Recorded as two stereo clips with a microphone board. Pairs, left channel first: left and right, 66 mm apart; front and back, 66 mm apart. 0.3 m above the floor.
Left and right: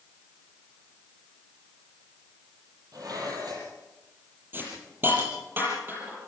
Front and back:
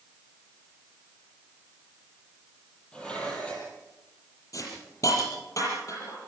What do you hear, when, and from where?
2.9 s dishes clattering: 75° right, 7 m
4.5 s a hiss: 30° right, 8 m